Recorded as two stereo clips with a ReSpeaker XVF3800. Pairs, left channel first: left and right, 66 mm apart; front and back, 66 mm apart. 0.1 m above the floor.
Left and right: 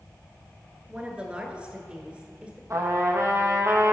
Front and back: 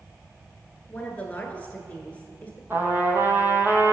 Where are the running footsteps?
No running footsteps in this recording.